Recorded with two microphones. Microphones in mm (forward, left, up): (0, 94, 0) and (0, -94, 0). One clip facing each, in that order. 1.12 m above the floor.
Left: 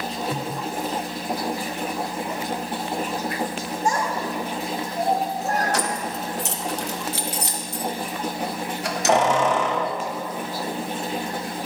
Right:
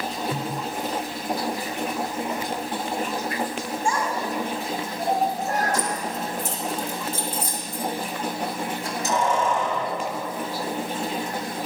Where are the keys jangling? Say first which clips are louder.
Left 1 dB; 75° left (ahead or behind), 0.7 m.